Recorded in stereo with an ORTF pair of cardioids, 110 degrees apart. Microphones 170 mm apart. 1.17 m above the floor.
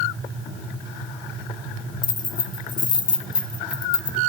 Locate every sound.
2.0 s keys jangling: 25° left, 0.6 m